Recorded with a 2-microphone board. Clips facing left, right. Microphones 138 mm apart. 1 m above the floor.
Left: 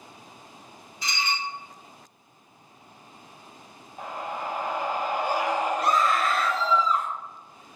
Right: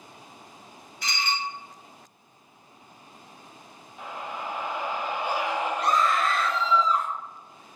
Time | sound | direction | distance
1.0 | dishes clattering | 65° right (ahead or behind) | 1.4 m
4.0 | a scream | 45° left (ahead or behind) | 0.6 m
5.8 | a scream | 5° left (ahead or behind) | 0.8 m